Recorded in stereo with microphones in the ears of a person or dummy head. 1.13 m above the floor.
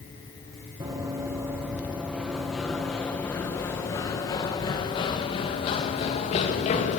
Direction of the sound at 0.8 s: 25° right (ahead or behind).